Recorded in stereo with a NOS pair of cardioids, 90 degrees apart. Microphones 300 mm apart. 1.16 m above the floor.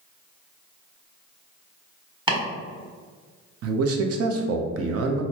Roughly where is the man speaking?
Ahead right.